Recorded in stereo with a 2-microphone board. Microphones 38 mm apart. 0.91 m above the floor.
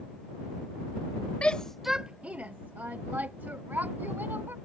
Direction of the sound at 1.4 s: 30° left (ahead or behind).